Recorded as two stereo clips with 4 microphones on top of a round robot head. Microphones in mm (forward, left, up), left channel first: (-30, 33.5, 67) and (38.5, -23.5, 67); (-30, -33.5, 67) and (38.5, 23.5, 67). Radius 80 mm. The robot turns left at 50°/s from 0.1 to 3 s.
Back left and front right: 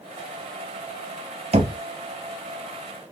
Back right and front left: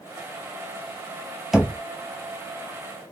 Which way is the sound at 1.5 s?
45° right.